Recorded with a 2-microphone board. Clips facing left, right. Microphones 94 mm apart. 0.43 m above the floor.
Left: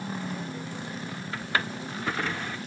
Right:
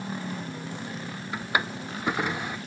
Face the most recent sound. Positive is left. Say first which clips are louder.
# right 2 dB
turn(degrees=-15)  # may be behind; listen again after turning